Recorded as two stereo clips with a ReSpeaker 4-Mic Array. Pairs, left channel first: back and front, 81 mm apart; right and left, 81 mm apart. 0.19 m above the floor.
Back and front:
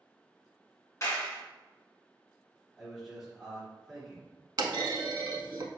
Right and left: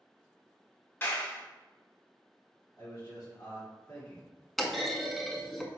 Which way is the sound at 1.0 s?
140° right.